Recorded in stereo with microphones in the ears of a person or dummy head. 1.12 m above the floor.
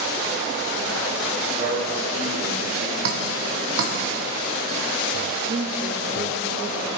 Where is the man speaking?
35° right (ahead or behind), 4.5 m.